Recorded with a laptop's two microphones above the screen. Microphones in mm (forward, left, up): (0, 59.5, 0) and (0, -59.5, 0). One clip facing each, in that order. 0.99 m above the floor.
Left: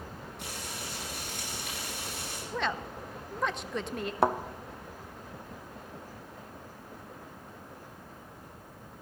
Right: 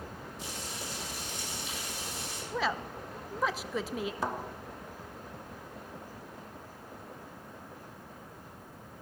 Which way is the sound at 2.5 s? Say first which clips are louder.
Right 1 dB; 5° right (ahead or behind).